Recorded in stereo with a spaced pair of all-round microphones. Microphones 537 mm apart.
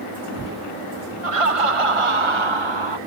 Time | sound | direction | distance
1.2 | laughter | 75° right (ahead or behind) | ?